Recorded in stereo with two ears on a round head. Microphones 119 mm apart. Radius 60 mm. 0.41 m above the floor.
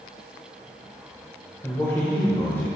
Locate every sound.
1.6 s a man speaking: 20° left (ahead or behind), 1.3 m